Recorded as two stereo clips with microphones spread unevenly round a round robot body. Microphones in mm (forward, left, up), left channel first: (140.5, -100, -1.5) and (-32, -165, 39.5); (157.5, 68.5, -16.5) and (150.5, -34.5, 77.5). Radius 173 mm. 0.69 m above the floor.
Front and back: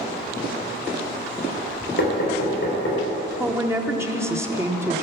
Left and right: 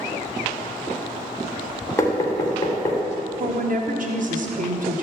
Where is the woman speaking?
80° right, 1.5 m.